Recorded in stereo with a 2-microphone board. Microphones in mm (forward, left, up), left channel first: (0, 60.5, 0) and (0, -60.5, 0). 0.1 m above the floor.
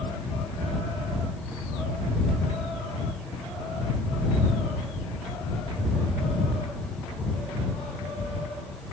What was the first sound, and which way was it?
Only background noise.